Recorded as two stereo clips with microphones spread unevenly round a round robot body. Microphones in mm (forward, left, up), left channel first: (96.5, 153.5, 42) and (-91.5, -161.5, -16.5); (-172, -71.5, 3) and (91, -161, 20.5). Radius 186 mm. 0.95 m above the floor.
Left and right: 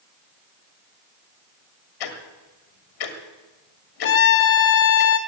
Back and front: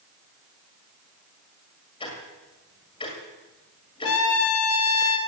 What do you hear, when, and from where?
2.0 s ticking: 85° left, 1.8 m
4.0 s a trumpet: 110° left, 1.0 m